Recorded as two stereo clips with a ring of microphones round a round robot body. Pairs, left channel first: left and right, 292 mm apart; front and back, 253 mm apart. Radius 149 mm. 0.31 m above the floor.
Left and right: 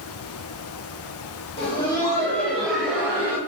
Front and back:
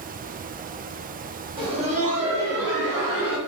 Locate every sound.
1.6 s laughter: 130° left, 1.1 m; by 3.4 s 170° right, 1.5 m